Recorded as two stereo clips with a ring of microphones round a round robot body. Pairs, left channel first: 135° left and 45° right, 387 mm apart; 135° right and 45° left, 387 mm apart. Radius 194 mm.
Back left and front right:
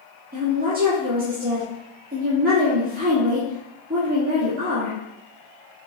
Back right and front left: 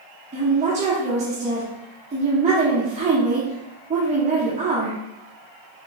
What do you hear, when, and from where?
0.3 s a woman speaking: 5° right, 1.2 m